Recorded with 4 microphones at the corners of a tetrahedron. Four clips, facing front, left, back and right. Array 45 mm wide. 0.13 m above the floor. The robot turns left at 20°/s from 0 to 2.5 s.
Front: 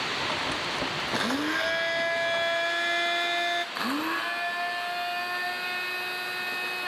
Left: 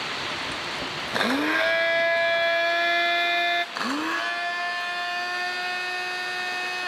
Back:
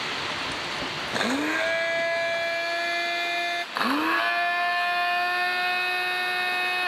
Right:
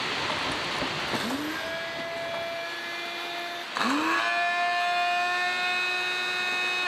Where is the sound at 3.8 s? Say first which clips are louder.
Right 1 dB, back 5 dB; 170° right, 0.8 m.